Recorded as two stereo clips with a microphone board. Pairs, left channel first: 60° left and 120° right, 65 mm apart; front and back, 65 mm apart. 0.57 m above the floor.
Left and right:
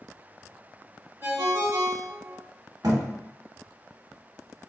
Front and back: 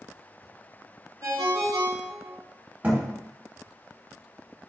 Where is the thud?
120° right, 0.7 m.